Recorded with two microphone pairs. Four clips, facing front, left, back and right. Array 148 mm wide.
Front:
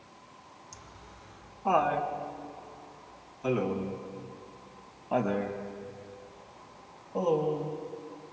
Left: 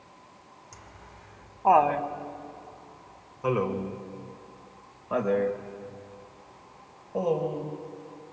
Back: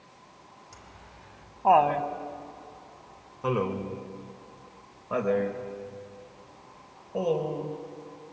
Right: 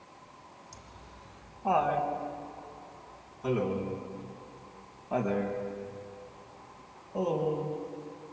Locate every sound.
0.7 s laughter: 130° left, 1.7 m; by 7.7 s 155° left, 5.5 m